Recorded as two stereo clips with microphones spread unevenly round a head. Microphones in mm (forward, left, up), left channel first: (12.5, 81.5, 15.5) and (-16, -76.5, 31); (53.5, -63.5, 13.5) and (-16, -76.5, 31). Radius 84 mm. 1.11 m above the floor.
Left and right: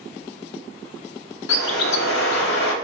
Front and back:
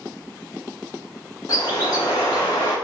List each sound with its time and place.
1.5 s a bird: 80° left, 0.6 m